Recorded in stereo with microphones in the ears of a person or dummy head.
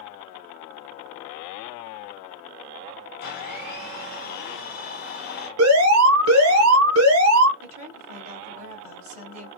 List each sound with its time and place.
3.2 s a blender: 40° left (ahead or behind), 1.6 m
5.6 s an alarm: 75° right (ahead or behind), 1.6 m
7.6 s a woman speaking: 35° right (ahead or behind), 3 m